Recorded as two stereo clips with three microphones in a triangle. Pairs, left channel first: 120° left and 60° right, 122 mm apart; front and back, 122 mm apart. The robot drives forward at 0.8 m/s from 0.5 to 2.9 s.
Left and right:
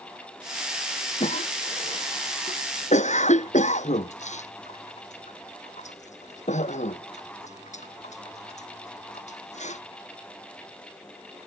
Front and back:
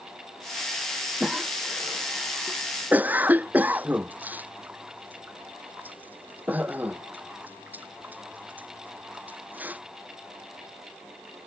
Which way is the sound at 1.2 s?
95° left.